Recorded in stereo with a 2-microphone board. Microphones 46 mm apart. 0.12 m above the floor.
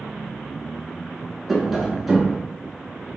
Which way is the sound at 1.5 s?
Centre (ahead or behind).